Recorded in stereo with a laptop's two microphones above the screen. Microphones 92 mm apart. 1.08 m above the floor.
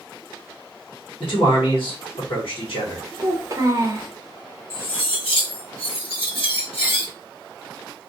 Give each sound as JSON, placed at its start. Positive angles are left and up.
{"t": 1.2, "sound": "a man speaking", "side_deg": 70, "distance_m": 1.3}
{"t": 3.2, "sound": "a child speaking", "side_deg": -35, "distance_m": 0.5}
{"t": 4.7, "sound": "cutlery clinking", "side_deg": 70, "distance_m": 1.1}